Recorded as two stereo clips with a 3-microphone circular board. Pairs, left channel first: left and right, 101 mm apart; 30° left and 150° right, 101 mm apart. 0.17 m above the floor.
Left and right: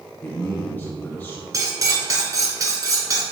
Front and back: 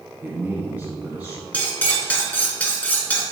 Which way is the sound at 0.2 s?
150° left.